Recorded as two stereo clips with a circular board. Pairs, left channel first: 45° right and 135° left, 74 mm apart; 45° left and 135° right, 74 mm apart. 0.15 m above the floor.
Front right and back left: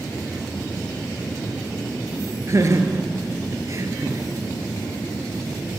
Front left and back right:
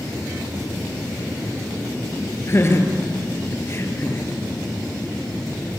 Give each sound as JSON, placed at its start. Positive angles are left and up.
{"t": 2.5, "sound": "laughter", "azimuth_deg": 95, "distance_m": 2.5}